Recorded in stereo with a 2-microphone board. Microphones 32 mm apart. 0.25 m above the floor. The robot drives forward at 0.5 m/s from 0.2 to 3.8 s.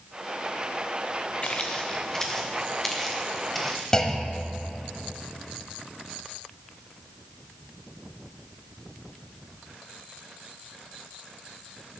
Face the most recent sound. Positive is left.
turn(degrees=20)  # may be behind; listen again after turning